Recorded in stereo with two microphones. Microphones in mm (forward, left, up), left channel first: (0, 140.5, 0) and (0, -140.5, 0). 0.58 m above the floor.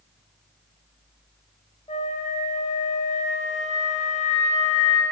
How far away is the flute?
About 0.6 m.